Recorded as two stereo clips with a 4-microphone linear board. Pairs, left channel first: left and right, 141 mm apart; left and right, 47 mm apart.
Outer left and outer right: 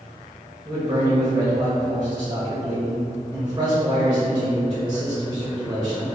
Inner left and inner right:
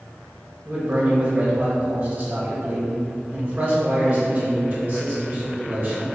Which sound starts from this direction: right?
A man speaking, at 0.7 s.